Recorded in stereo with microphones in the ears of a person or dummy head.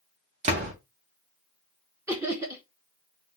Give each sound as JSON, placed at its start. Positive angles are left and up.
{"t": 0.4, "sound": "a door slam", "side_deg": -25, "distance_m": 0.6}
{"t": 2.1, "sound": "laughter", "side_deg": -15, "distance_m": 0.5}